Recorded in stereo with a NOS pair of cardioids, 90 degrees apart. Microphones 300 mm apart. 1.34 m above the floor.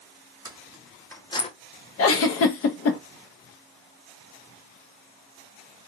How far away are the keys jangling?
About 0.9 m.